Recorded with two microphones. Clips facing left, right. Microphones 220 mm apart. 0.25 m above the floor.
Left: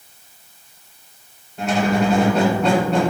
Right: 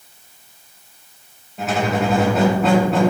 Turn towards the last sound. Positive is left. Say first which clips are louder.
# left 2 dB
turn(degrees=-5)  # may be behind; listen again after turning